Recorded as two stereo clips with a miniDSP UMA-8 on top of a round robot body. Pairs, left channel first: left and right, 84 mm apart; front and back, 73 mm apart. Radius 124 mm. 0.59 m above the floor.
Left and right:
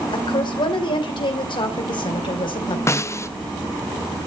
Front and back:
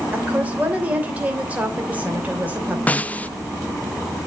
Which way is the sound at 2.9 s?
60° left.